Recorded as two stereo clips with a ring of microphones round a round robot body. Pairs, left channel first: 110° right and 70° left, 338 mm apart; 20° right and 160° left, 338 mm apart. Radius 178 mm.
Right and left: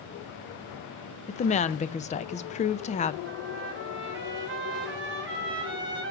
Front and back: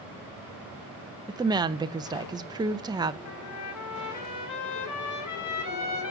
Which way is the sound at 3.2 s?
15° left.